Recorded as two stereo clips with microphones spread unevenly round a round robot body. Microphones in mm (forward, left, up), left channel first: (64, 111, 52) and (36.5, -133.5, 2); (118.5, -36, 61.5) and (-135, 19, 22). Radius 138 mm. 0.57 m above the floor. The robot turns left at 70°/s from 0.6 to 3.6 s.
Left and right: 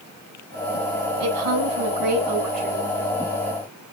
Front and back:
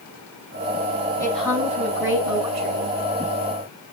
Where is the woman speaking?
90° right, 6 m; by 3.0 s 145° left, 6 m.